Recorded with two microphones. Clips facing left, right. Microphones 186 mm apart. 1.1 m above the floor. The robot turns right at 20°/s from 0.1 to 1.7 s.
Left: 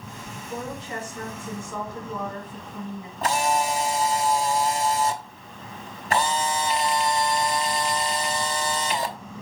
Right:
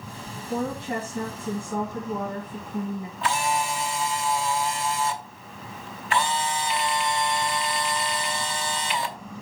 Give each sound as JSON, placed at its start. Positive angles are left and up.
{"t": 0.5, "sound": "a woman speaking", "side_deg": -65, "distance_m": 1.4}
{"t": 3.2, "sound": "a camera shutter", "side_deg": 40, "distance_m": 0.8}